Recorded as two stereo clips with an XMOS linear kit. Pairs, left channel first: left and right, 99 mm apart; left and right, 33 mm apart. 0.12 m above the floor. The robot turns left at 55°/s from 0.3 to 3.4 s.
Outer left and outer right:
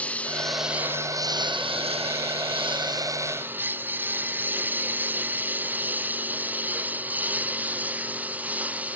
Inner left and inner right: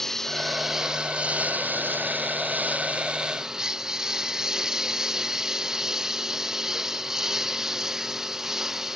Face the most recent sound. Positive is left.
turn(degrees=-15)  # may be behind; listen again after turning